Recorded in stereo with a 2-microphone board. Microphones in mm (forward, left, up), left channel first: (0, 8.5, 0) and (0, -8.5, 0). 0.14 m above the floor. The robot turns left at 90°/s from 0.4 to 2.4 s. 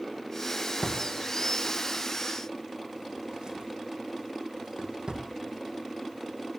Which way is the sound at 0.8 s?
40° left (ahead or behind).